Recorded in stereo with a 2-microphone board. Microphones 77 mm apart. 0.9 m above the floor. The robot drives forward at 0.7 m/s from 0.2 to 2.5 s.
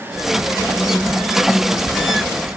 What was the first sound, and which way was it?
Only background noise.